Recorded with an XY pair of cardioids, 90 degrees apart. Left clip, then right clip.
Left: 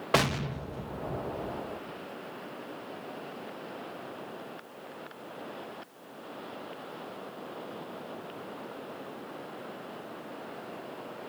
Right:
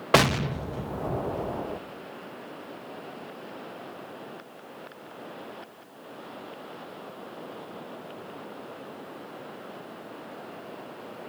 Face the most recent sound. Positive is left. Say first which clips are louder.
# right 6 dB
turn(degrees=-40)